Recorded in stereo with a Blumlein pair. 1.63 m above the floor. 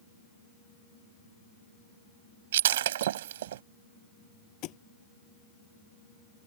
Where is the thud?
40° left.